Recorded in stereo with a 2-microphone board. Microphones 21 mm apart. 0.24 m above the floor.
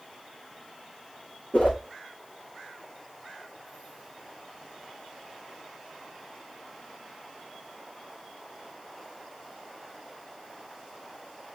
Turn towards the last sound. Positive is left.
turn(degrees=85)